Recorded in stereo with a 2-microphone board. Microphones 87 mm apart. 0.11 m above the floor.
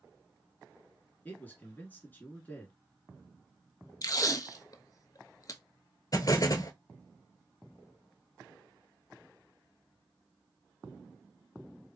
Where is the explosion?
45° left (ahead or behind), 0.9 m.